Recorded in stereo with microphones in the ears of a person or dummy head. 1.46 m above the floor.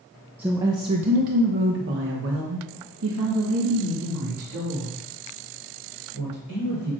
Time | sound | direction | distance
0.4 | a woman speaking | 5° right (ahead or behind) | 0.6 m